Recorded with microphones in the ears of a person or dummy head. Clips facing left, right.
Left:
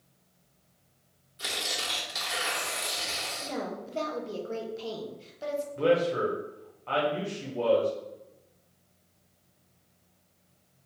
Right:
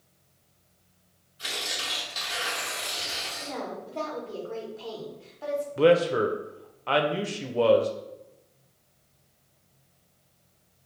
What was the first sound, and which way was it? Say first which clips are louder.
Tearing paper: left 1 dB; 60° left (ahead or behind).